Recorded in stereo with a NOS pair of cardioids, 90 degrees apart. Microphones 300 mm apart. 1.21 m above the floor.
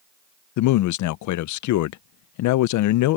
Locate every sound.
0.6 s a man speaking: 70° left